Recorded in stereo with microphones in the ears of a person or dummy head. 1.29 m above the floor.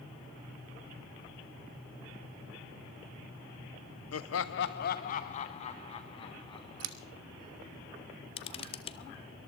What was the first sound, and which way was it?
Laughter, 75° left (ahead or behind).